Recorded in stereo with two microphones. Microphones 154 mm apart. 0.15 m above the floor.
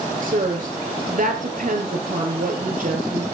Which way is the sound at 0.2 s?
60° right (ahead or behind).